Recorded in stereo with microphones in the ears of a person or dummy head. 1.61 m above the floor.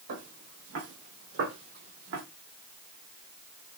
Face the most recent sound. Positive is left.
turn(degrees=-70)  # may be behind; listen again after turning